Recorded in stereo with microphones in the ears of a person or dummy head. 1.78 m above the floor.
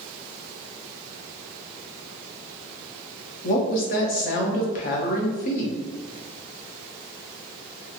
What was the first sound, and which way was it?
A woman speaking, 50° left (ahead or behind).